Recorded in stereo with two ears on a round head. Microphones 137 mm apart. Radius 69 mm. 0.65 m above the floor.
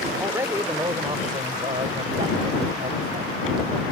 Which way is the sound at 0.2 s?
15° right (ahead or behind).